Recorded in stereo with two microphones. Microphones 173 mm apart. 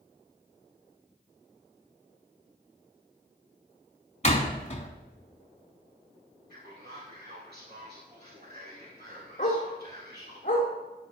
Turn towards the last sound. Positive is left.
turn(degrees=40)  # may be behind; listen again after turning